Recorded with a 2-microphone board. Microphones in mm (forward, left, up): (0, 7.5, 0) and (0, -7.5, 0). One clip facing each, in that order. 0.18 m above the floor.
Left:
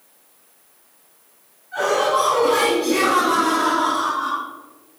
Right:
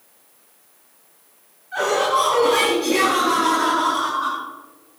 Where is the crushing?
No crushing in this recording.